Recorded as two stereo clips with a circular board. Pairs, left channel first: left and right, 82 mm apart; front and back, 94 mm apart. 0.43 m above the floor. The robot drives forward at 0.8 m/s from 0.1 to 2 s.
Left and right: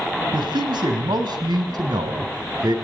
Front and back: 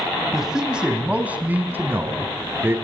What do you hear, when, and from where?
0.3 s a man speaking: 95° right, 4 m; by 2.8 s 115° right, 4 m